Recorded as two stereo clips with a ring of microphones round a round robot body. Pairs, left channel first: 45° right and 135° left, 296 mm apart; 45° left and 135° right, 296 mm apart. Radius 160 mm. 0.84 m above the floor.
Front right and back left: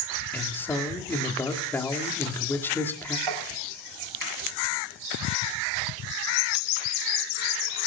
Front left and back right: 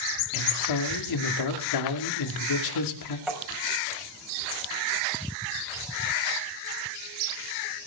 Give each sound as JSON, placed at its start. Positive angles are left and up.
{"t": 0.3, "sound": "a man speaking", "azimuth_deg": 40, "distance_m": 2.5}
{"t": 3.3, "sound": "tapping", "azimuth_deg": 140, "distance_m": 5.5}